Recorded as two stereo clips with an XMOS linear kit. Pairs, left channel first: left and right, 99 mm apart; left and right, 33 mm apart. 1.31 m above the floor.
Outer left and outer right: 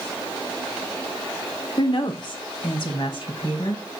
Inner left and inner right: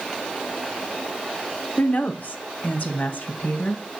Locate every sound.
1.8 s a woman speaking: 50° left (ahead or behind), 1.1 m